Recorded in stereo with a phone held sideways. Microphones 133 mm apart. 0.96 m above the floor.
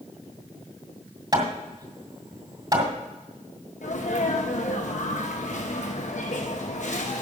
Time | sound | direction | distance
1.3 | hammering | 35° right (ahead or behind) | 1.8 m
3.8 | a sneeze | 65° left (ahead or behind) | 1.0 m